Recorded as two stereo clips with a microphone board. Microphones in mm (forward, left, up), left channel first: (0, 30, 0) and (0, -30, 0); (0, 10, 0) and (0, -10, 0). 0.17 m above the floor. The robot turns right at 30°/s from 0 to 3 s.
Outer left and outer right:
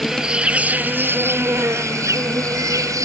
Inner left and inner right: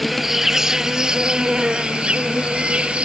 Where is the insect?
170° right; by 3.1 s 80° right.